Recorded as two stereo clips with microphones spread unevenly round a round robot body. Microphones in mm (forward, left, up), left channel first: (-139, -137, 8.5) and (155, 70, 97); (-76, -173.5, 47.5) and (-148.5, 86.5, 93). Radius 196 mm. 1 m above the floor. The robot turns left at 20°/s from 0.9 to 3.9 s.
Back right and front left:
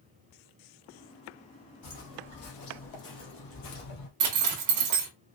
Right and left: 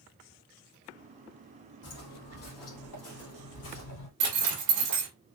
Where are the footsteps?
100° right, 2.5 m; by 4.1 s 90° right, 1.7 m.